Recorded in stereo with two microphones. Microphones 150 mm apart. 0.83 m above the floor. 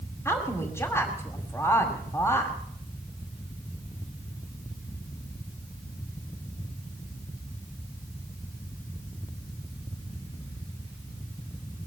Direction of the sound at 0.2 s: 20° left (ahead or behind).